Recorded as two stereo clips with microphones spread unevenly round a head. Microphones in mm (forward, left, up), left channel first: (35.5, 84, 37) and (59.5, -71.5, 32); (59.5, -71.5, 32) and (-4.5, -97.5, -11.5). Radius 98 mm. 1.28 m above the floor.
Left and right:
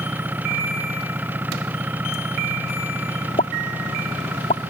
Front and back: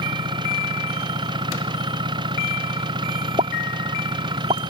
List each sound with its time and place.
0.0 s an engine running: 160° right
3.4 s a pop: 160° left